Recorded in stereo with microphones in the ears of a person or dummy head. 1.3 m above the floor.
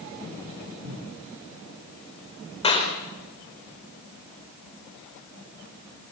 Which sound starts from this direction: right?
A cupboard door, at 0.8 s.